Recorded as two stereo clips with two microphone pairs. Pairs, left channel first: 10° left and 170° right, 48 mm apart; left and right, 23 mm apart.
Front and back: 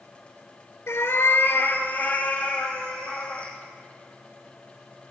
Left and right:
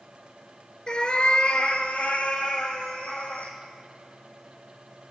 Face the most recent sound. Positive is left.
turn(degrees=80)